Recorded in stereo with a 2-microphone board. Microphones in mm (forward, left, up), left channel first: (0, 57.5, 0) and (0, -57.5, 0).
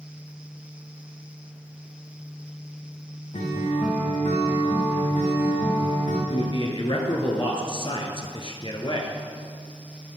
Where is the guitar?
75° left (ahead or behind), 3 m.